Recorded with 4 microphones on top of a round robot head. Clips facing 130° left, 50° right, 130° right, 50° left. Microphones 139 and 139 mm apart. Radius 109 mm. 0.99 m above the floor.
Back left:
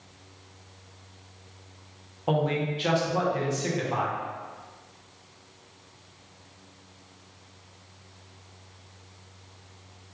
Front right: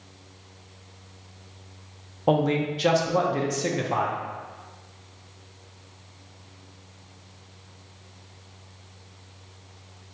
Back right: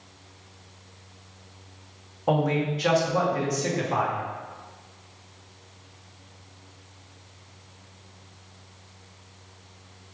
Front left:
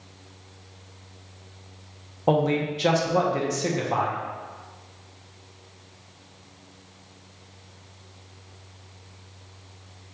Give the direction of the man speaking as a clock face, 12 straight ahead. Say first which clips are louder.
Front right 4 dB, front left 2 dB; 12 o'clock.